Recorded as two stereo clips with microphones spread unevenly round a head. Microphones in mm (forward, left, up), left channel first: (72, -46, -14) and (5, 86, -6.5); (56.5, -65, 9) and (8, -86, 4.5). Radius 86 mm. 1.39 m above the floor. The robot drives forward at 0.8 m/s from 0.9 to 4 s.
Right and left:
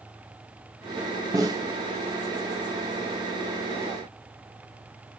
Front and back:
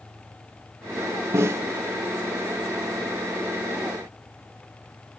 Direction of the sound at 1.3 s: 175° left.